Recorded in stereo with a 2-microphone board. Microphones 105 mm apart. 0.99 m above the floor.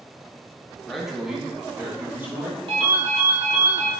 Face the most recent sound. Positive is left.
turn(degrees=-55)  # may be behind; listen again after turning